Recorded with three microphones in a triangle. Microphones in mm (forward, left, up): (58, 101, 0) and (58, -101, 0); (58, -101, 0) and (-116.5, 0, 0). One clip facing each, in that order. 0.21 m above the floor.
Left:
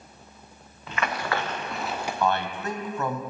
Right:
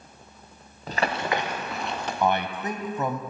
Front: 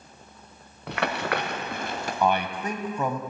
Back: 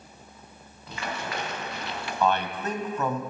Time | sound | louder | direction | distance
0.9 | running footsteps | right 2 dB, front 6 dB | 40° right | 1.3 m
2.2 | a man speaking | right 2 dB, even | 75° right | 1.0 m